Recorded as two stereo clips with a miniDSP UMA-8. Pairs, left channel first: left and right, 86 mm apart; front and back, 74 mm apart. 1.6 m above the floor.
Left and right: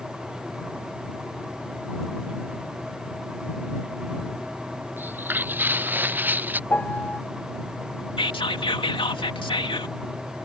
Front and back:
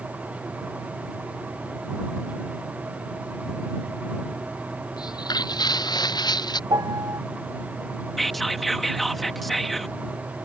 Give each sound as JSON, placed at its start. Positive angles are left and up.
{"t": 5.0, "sound": "footsteps", "azimuth_deg": -25}
{"t": 6.7, "sound": "a piano", "azimuth_deg": 160}
{"t": 8.2, "sound": "whispering", "azimuth_deg": 90}